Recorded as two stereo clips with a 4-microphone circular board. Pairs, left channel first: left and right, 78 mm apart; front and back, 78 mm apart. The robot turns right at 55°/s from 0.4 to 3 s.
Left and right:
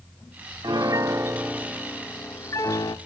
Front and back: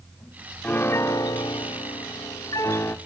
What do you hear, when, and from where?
0.6 s a piano: 65° right, 0.7 m; by 3.0 s 65° left, 0.7 m